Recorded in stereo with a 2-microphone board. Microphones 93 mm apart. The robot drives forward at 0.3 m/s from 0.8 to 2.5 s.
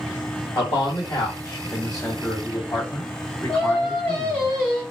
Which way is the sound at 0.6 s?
50° left (ahead or behind).